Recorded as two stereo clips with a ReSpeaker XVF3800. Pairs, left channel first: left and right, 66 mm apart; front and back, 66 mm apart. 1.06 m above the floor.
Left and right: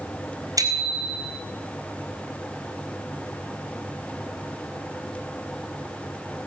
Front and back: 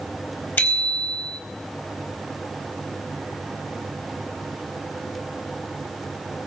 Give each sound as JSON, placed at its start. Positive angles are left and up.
{"t": 0.6, "sound": "a bicycle bell", "azimuth_deg": -60, "distance_m": 4.0}